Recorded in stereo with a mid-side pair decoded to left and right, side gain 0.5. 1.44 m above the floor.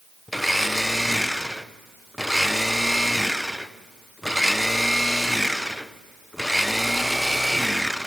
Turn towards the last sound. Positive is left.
turn(degrees=0)